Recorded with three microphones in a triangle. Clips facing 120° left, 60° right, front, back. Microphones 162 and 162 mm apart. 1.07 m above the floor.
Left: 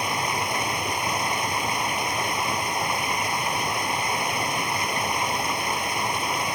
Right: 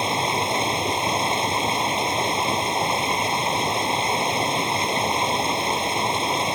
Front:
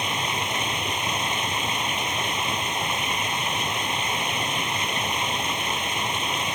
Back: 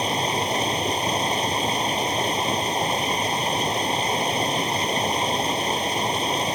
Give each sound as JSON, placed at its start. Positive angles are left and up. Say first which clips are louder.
{"t": 0.0, "sound": "running water", "louder": "right 4 dB, back 5 dB", "azimuth_deg": -125}